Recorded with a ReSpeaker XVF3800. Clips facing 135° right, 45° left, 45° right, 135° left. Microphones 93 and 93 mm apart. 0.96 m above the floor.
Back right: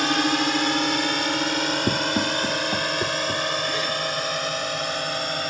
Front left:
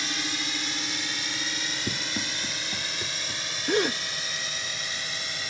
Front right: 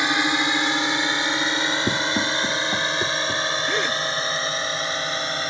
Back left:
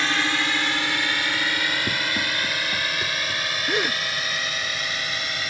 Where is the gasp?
55° left.